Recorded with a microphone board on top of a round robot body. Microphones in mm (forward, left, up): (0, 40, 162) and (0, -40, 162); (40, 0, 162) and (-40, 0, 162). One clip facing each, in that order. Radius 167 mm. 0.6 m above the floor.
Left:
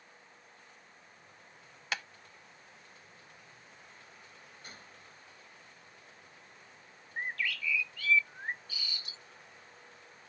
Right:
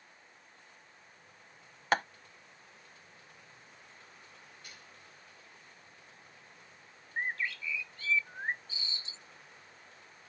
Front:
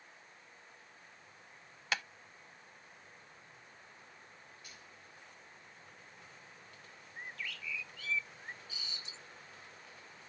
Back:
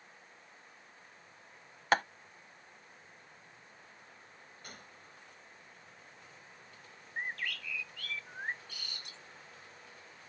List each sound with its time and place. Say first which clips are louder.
1.9 s tapping: right 9 dB, back 9 dB; 135° right
4.6 s a gunshot: left 2 dB, back 3 dB; 145° left
7.2 s a bird: right 1 dB, back 7 dB; 150° right